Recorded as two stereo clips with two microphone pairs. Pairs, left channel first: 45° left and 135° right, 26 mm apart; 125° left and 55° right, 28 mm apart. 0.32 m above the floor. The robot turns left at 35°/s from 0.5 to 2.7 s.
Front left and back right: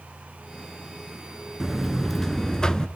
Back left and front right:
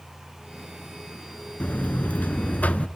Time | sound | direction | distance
1.6 | a buzzer | 145° left | 0.9 m